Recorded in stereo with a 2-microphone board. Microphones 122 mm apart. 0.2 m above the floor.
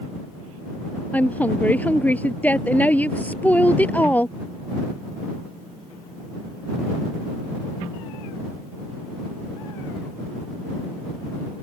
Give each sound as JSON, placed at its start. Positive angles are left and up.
{"t": 1.1, "sound": "a woman speaking", "side_deg": 15}